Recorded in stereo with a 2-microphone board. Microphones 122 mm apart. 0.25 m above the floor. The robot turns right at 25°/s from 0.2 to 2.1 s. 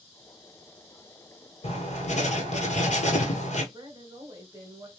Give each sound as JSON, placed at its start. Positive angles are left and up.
{"t": 1.6, "sound": "writing", "side_deg": 60, "distance_m": 1.2}
{"t": 3.7, "sound": "a woman speaking", "side_deg": -20, "distance_m": 1.0}